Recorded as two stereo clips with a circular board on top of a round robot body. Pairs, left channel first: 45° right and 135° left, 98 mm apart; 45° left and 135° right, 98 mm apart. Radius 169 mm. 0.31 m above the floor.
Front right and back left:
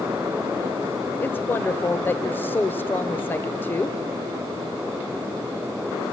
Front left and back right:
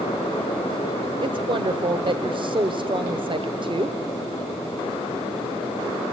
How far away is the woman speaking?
About 1.6 m.